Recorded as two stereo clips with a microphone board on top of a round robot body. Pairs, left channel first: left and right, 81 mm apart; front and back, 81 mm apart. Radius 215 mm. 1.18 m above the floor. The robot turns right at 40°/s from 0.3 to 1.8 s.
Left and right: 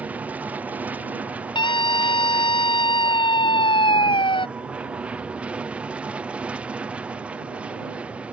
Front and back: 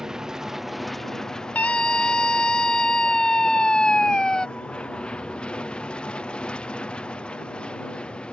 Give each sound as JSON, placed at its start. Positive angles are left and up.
{"t": 0.0, "sound": "an aircraft", "azimuth_deg": -110}
{"t": 1.6, "sound": "a scream", "azimuth_deg": 70}